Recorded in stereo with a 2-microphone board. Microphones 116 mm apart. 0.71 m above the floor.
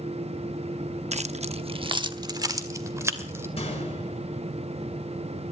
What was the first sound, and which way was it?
Keys jangling, 60° right (ahead or behind).